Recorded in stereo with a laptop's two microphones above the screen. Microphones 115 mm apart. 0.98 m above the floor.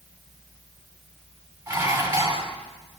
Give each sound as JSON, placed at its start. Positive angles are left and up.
{"t": 1.7, "sound": "dishes clattering", "side_deg": -30, "distance_m": 3.5}